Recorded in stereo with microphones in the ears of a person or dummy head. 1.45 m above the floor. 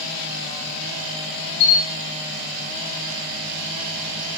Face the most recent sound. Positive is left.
turn(degrees=30)  # may be behind; listen again after turning